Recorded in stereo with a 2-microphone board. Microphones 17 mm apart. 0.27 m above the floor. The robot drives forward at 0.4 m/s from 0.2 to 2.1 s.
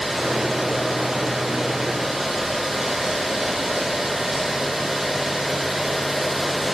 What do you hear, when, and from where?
Only background noise.